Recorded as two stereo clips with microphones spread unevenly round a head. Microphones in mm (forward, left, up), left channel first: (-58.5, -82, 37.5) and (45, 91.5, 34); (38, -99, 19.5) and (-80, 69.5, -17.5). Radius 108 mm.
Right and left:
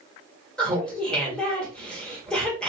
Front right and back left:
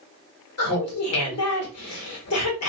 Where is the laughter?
35° right, 1.1 m.